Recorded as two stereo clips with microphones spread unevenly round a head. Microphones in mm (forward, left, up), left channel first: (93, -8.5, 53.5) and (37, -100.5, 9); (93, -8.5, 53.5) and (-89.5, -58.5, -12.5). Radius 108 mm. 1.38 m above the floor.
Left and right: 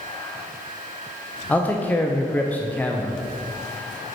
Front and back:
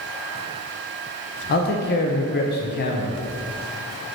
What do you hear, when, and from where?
1.5 s a man speaking: 30° right, 0.7 m